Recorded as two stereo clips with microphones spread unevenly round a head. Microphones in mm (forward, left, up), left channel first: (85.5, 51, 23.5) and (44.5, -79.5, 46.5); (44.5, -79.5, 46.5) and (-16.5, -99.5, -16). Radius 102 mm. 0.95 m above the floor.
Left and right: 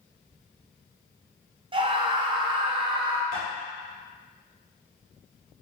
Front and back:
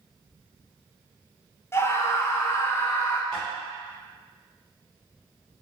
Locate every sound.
1.7 s a scream: 110° right, 0.6 m
3.3 s tapping: 115° left, 1.6 m